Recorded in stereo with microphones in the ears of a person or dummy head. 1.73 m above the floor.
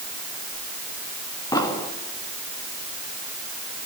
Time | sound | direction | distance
1.5 | an explosion | 20° left (ahead or behind) | 2 m